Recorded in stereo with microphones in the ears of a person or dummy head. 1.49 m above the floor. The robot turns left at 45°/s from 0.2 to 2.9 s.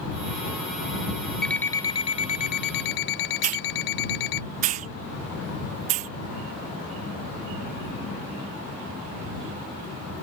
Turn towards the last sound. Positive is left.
turn(degrees=-45)  # may be behind; listen again after turning